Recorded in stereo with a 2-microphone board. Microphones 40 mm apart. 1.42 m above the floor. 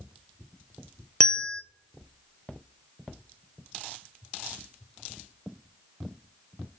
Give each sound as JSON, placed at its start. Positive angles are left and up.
{"t": 1.2, "sound": "a bell", "side_deg": 20, "distance_m": 0.6}